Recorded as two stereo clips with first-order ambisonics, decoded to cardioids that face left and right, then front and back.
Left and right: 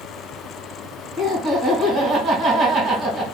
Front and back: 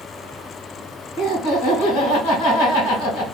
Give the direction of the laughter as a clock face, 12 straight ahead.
12 o'clock.